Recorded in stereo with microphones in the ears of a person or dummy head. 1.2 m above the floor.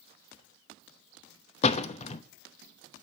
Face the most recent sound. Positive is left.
turn(degrees=40)  # may be behind; listen again after turning